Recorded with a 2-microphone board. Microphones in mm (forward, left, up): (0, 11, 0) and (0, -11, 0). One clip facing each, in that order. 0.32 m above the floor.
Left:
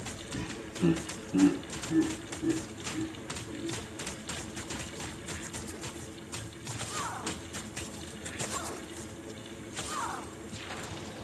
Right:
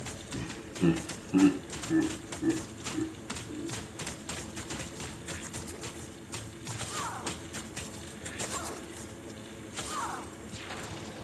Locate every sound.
0.3 s laughter: 5° left (ahead or behind), 1.1 m; by 3.7 s 70° right (ahead or behind), 3 m